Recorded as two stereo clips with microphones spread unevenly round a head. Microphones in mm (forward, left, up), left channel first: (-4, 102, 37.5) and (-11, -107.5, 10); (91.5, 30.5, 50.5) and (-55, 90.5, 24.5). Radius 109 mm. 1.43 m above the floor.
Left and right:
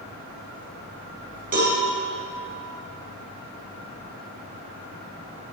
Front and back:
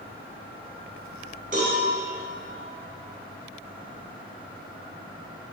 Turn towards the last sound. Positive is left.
turn(degrees=-145)